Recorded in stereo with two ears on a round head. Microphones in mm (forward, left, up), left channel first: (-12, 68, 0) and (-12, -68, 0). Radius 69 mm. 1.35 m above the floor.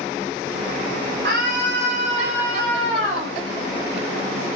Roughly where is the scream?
Right.